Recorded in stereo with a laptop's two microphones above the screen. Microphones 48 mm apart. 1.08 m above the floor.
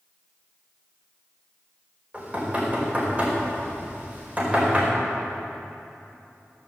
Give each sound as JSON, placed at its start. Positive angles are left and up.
{"t": 2.1, "sound": "knocking", "side_deg": -25, "distance_m": 4.5}